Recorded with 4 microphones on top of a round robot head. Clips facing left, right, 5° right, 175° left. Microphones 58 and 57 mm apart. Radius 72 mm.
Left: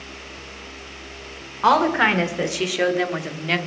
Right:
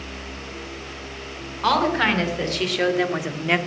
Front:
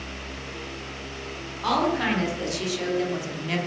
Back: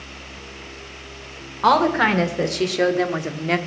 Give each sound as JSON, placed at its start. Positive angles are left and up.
{"t": 1.6, "sound": "a woman speaking", "azimuth_deg": 150, "distance_m": 2.0}